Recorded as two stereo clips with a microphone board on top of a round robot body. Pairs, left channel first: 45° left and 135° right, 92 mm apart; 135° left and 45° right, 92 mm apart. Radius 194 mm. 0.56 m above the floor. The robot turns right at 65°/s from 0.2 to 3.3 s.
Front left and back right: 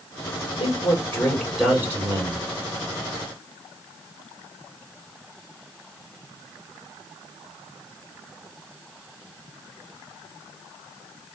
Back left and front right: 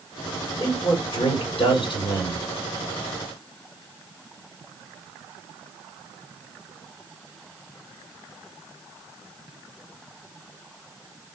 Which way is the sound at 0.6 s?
80° left.